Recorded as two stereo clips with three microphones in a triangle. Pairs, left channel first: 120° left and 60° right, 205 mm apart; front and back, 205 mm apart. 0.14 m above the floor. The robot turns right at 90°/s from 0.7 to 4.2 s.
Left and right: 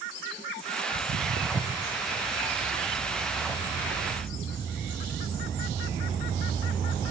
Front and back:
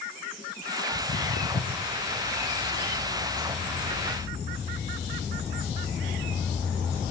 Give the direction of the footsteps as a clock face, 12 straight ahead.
2 o'clock.